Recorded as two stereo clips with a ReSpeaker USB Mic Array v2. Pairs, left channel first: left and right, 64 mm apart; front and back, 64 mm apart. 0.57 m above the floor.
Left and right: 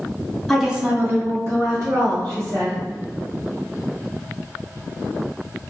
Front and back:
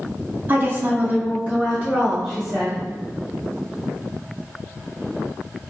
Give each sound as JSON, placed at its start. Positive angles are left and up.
{"t": 0.5, "sound": "a woman speaking", "azimuth_deg": 170, "distance_m": 0.6}